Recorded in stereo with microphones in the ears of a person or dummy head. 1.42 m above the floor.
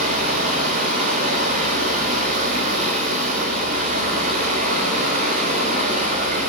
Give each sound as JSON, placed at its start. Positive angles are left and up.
{"t": 0.0, "sound": "running water", "side_deg": -45, "distance_m": 4.0}